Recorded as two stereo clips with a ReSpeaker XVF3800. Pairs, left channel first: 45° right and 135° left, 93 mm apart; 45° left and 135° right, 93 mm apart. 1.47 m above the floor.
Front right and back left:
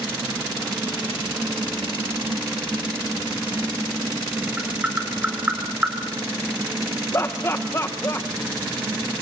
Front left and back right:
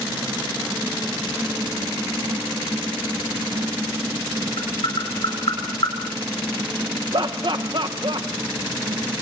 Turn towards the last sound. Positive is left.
turn(degrees=-105)